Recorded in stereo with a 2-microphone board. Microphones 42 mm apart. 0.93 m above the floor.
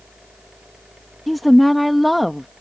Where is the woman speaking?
Centre (ahead or behind).